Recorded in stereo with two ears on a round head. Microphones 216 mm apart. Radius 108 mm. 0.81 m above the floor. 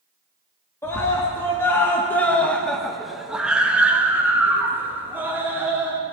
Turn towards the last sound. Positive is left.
turn(degrees=-10)  # may be behind; listen again after turning